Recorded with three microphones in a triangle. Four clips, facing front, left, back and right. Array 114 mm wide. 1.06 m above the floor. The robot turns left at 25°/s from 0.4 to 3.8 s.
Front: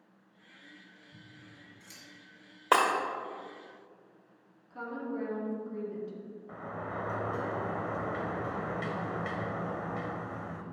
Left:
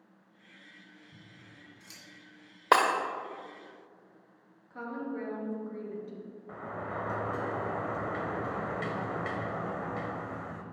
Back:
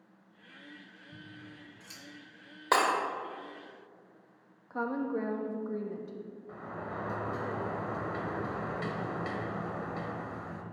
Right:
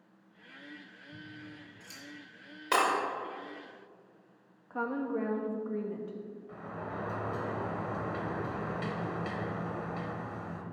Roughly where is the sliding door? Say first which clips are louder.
Left 4 dB, front 2 dB; left.